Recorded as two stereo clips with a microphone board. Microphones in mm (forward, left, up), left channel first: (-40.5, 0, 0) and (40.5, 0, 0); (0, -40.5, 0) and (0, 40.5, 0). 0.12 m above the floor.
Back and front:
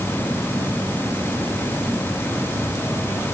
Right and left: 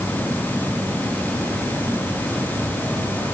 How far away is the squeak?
No squeak in this recording.